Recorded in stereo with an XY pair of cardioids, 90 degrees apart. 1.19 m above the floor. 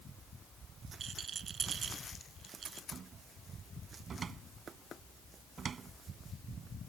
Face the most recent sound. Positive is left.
turn(degrees=-50)